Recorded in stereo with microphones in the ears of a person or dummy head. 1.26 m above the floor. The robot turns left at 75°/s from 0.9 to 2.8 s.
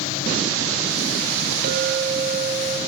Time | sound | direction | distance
1.6 | a clink | 60° right | 1.4 m